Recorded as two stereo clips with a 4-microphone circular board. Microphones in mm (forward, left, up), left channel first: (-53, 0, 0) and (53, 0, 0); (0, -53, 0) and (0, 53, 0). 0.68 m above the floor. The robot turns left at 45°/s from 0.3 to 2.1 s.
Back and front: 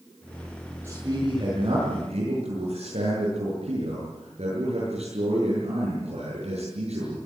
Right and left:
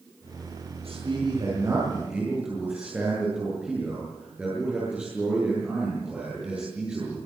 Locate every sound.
0.8 s a man speaking: 70° left, 10 m; by 7.2 s 15° left, 10 m